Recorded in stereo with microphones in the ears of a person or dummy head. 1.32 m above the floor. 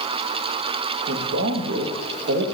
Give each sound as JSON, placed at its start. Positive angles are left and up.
{"t": 1.1, "sound": "a man speaking", "side_deg": -65, "distance_m": 1.2}